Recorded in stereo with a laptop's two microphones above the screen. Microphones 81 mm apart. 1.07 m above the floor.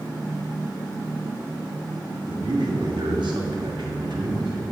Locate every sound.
2.2 s a man speaking: 70° right (ahead or behind), 1.5 m